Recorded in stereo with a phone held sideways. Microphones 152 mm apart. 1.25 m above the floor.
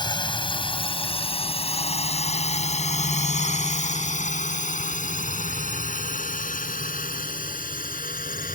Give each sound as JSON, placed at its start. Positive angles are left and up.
{"t": 0.0, "sound": "a drone", "side_deg": 30}